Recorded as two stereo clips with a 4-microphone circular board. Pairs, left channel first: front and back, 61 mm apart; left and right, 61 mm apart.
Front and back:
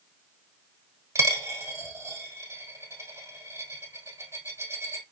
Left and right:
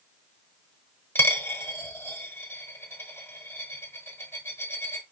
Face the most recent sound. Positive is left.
turn(degrees=145)